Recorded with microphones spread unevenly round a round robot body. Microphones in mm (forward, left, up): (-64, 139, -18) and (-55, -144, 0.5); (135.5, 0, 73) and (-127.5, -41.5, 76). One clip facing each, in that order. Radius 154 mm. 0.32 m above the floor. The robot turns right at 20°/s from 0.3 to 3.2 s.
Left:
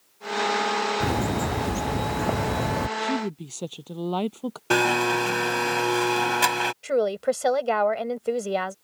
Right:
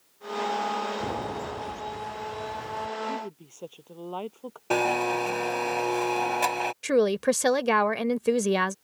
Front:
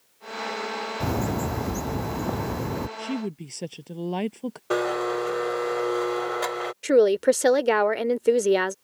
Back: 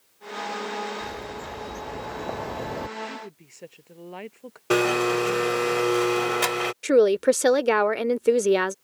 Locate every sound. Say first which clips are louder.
1.0 s a bird: left 7 dB, front 9 dB; 40° left; by 2.9 s 75° left
3.0 s a woman speaking: left 7 dB, front 9 dB; 45° left; by 4.6 s 50° left
4.7 s a blender: left 3 dB, back 4 dB; 145° left
6.8 s a woman speaking: right 2 dB, even; 90° right